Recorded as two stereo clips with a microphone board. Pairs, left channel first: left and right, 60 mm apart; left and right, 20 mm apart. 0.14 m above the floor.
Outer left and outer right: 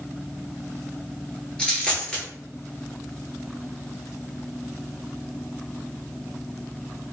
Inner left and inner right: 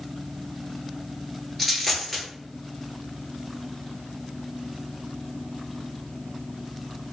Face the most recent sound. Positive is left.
turn(degrees=15)  # may be behind; listen again after turning